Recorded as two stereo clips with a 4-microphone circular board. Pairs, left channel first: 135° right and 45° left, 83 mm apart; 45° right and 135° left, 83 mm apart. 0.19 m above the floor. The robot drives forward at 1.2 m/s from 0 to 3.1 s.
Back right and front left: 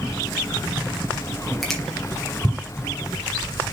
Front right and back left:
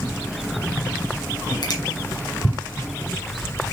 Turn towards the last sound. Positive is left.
turn(degrees=-105)